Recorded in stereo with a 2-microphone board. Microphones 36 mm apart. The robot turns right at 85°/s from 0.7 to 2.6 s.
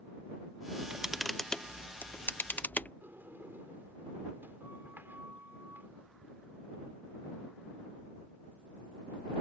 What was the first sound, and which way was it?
A camera shutter, 40° right (ahead or behind).